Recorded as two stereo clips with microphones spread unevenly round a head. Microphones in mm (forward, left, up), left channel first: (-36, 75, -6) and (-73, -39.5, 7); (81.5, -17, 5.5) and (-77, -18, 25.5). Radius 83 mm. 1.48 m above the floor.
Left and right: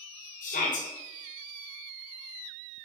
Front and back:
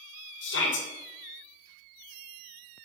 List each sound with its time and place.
0.4 s a shout: 25° left, 1.7 m